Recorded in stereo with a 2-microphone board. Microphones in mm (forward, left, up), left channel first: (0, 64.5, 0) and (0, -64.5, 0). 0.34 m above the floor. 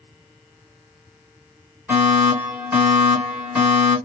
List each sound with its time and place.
1.9 s a fire alarm: 10° right (ahead or behind), 2.5 m